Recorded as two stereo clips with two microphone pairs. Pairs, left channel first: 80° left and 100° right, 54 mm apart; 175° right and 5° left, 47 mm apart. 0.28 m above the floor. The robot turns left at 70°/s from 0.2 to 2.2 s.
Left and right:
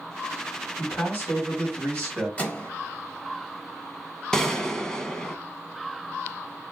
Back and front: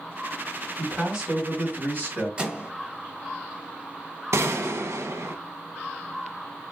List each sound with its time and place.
0.8 s a man speaking: 110° left, 1.8 m; by 2.3 s 10° left, 1.8 m
2.4 s a microwave: 45° left, 0.8 m
4.3 s a gunshot: 5° left, 0.5 m